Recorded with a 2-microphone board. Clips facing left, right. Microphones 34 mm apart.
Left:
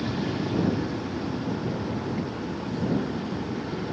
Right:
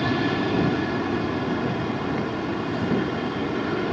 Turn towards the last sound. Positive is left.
turn(degrees=-55)  # may be behind; listen again after turning